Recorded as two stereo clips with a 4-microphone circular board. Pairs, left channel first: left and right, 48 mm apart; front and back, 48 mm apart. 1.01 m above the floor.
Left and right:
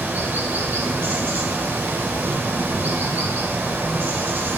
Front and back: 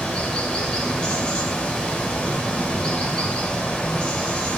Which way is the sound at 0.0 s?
65° right.